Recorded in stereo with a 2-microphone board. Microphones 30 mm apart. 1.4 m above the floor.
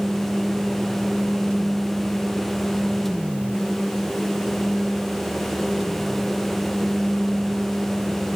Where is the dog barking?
I don't hear a dog barking.